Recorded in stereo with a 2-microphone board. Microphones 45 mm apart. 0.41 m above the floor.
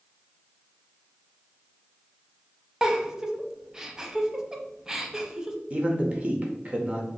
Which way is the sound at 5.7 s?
30° right (ahead or behind).